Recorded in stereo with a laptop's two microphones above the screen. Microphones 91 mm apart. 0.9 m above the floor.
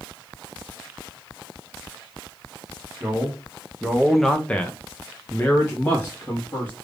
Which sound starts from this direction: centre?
A man speaking, at 3.0 s.